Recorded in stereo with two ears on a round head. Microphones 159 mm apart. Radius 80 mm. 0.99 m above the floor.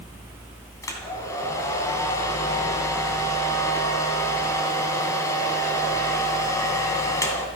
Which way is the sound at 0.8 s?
20° left (ahead or behind).